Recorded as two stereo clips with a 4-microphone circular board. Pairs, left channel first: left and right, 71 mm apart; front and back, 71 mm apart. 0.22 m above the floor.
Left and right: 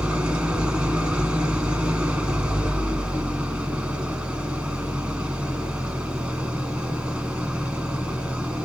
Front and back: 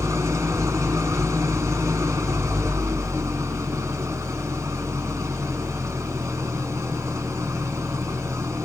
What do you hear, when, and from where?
0.0 s an engine running: 155° right, 2.0 m